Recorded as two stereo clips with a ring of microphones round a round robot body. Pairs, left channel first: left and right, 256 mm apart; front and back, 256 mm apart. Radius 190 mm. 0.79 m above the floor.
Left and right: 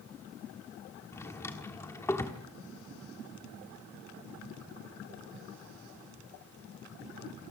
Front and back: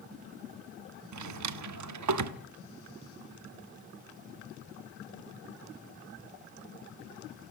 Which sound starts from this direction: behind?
A drawer, at 1.1 s.